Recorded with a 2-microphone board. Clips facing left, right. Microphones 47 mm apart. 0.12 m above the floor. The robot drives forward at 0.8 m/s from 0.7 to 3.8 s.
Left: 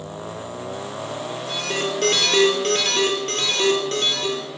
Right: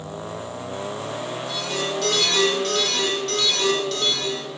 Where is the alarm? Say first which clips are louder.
Left 3 dB; 50° left (ahead or behind), 3.5 m; by 4.4 s 40° left (ahead or behind), 4 m.